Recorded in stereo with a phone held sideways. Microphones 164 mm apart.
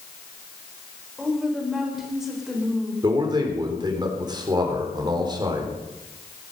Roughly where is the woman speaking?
Centre.